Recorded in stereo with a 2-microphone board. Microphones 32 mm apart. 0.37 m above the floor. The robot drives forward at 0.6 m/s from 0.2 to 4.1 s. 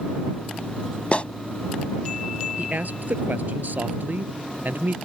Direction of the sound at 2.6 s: 60° right (ahead or behind).